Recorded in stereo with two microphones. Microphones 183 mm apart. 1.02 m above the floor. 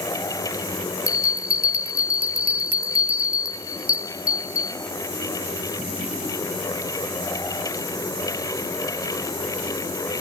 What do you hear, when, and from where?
1.1 s a bell: 50° left (ahead or behind), 1.6 m